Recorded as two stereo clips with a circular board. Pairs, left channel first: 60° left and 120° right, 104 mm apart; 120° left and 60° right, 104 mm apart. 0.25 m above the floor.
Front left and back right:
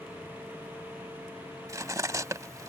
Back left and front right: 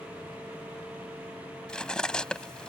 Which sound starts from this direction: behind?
Cutlery clinking, at 1.7 s.